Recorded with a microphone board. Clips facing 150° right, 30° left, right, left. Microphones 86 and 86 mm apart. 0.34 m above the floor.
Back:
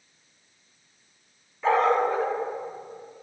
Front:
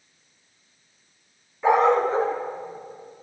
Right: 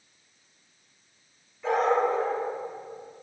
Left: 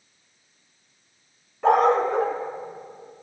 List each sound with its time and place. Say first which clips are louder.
1.6 s a dog barking: front 3 dB, left 5 dB; 105° left, 1.1 m; by 3.2 s 80° left, 2.5 m